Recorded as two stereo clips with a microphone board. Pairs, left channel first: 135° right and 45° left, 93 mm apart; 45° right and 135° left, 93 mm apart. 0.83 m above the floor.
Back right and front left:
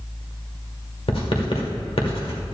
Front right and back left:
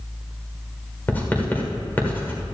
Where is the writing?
115° right, 1.6 m.